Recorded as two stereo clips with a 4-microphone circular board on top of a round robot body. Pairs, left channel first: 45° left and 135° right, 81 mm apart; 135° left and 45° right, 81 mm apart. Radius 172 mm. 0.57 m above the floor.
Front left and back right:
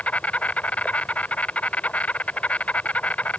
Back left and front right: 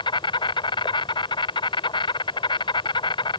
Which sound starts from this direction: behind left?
An insect, at 0.0 s.